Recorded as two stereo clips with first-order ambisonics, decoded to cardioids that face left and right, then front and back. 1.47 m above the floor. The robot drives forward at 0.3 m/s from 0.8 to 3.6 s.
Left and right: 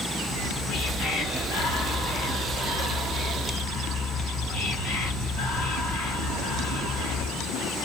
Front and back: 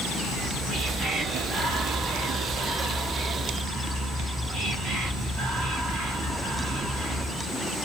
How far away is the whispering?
About 1.5 m.